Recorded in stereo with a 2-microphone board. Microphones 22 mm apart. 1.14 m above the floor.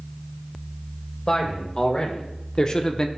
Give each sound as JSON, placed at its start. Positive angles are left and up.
{"t": 1.3, "sound": "a man speaking", "side_deg": 40, "distance_m": 1.8}